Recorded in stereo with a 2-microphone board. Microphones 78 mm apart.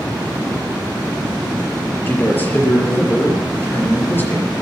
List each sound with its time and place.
2.1 s a man speaking: 25° left (ahead or behind), 5 m